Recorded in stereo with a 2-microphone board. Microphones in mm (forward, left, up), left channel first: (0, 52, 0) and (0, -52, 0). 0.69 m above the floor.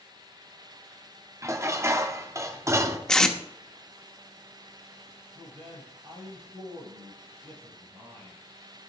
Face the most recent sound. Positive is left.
turn(degrees=-75)  # may be behind; listen again after turning